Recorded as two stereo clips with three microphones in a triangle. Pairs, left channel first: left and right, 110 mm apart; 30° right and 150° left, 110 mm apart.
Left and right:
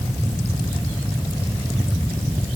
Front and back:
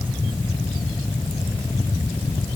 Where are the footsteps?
I don't hear footsteps.